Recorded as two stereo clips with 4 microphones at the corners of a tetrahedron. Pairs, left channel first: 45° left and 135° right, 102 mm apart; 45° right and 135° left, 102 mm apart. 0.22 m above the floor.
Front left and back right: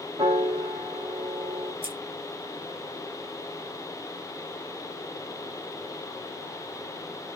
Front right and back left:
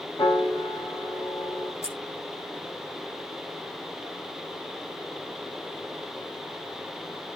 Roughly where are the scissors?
Right.